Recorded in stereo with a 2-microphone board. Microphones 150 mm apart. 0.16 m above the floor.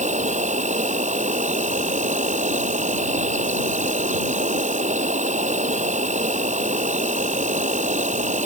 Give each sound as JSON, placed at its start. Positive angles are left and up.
{"t": 0.0, "sound": "an insect", "side_deg": -55}